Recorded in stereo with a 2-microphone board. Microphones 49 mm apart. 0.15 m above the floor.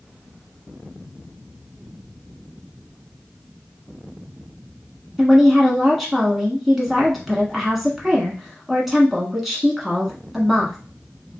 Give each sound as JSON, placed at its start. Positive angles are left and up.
{"t": 5.2, "sound": "a woman speaking", "side_deg": 0, "distance_m": 1.2}